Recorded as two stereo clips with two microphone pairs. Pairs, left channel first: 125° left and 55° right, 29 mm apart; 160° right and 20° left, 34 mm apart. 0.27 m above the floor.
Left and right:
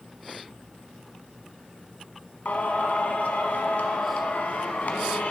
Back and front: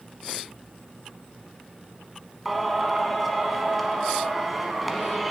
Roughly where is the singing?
Left.